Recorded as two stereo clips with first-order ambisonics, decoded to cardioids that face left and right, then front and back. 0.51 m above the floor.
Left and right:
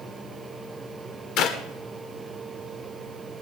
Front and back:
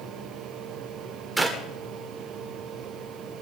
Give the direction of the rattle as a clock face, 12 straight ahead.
No rattle in this recording.